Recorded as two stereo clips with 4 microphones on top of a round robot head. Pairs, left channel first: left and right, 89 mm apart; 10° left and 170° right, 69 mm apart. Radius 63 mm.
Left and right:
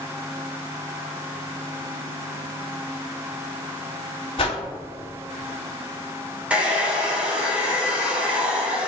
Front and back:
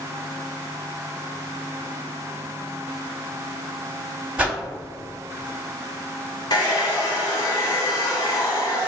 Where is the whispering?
No whispering in this recording.